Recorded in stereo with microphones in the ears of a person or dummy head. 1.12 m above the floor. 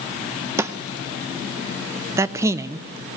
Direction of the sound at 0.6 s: 10° right (ahead or behind).